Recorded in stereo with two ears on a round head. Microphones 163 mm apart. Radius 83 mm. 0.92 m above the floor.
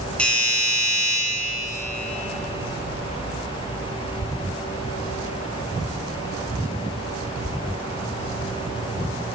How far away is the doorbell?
About 8 m.